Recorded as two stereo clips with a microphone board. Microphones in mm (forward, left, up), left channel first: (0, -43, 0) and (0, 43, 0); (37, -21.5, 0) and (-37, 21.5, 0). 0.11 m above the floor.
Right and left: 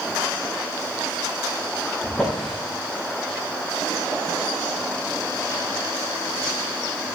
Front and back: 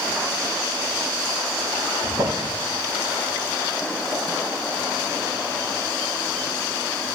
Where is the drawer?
170° right, 4.5 m.